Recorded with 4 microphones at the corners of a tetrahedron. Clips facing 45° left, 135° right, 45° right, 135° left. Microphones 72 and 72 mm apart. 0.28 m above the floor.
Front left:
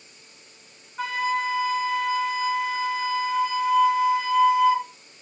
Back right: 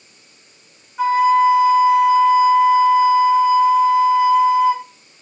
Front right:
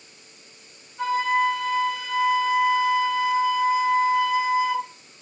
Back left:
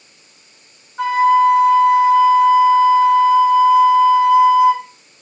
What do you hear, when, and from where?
1.0 s a flute: 145° left, 0.8 m